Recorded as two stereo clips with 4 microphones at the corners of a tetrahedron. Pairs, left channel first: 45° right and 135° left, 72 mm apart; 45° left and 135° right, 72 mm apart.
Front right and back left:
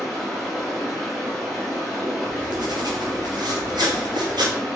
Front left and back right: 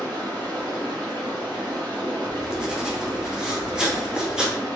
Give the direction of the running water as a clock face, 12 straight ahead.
5 o'clock.